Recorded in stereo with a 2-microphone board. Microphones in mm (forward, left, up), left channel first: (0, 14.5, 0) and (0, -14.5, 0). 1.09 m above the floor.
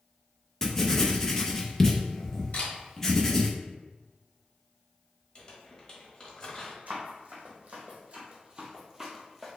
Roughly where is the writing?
Centre.